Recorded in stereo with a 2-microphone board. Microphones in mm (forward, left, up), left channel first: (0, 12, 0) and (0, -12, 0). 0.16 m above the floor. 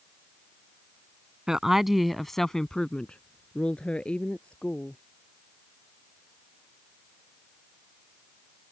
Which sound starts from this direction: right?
A woman speaking, at 1.5 s.